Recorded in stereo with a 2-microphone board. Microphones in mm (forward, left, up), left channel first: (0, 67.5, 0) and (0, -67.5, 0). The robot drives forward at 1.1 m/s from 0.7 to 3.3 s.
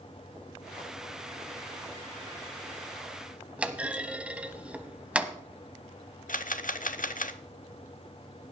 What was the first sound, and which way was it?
A clunk, 10° right (ahead or behind).